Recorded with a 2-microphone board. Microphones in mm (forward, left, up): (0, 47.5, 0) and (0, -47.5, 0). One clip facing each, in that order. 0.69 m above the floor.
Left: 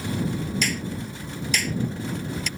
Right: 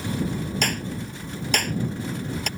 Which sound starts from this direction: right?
A clap, at 0.6 s.